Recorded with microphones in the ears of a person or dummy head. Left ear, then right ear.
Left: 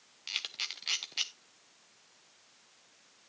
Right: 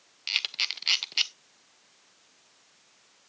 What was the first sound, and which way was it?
A camera shutter, 15° right (ahead or behind).